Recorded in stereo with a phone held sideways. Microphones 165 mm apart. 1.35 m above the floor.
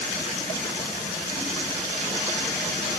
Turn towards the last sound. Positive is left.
No sound to turn to.